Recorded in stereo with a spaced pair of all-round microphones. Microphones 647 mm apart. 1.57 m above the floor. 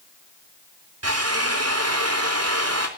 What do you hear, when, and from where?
1.0 s a drill: 20° right (ahead or behind), 3.5 m